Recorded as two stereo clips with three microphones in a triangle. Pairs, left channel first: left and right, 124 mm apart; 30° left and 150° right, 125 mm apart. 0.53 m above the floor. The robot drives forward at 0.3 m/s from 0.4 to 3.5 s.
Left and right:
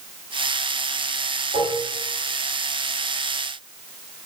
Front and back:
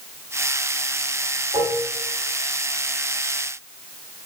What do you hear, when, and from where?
1.5 s dishes clattering: 105° right, 2.5 m; by 1.9 s 110° right, 2.5 m